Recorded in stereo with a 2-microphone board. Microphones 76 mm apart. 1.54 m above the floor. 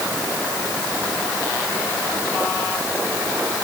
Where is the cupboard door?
I don't hear a cupboard door.